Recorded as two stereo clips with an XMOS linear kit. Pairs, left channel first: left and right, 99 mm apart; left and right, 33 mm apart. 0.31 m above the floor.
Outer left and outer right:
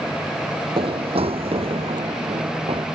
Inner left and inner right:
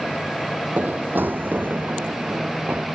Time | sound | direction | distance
0.8 | running footsteps | 60° right (ahead or behind) | ?